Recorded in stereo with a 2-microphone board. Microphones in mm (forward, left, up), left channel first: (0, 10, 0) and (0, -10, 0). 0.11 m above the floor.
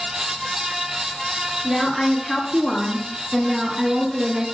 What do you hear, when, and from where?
1.6 s a woman speaking: 30° left (ahead or behind), 1.4 m; by 4.5 s 20° right (ahead or behind), 1.5 m